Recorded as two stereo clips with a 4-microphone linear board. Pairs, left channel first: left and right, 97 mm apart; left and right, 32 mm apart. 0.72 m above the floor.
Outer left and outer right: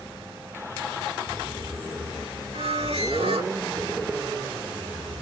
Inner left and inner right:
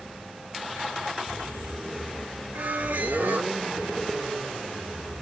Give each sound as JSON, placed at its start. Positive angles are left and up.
{"t": 2.5, "sound": "a squeak", "side_deg": -85, "distance_m": 3.0}